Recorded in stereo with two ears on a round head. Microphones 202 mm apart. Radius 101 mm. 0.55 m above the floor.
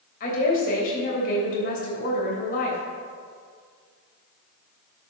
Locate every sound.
0.2 s a woman speaking: 40° left (ahead or behind), 3 m